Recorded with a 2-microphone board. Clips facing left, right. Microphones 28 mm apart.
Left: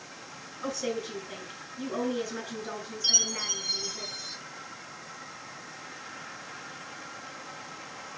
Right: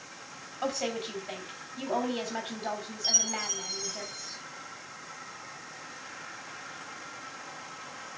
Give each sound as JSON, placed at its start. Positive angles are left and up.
{"t": 0.6, "sound": "a woman speaking", "side_deg": -65, "distance_m": 4.5}
{"t": 3.0, "sound": "a chime", "side_deg": 60, "distance_m": 2.5}